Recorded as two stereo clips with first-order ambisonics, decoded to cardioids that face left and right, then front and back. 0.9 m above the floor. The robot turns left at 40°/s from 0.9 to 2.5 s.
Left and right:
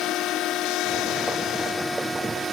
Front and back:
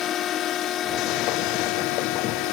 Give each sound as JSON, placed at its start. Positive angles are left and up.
{"t": 0.0, "sound": "a drone", "azimuth_deg": 50}